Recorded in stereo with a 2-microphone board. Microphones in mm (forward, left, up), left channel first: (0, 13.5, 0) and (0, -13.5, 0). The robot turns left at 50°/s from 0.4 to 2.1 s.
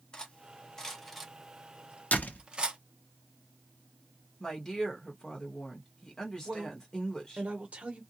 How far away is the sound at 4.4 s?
About 1.3 m.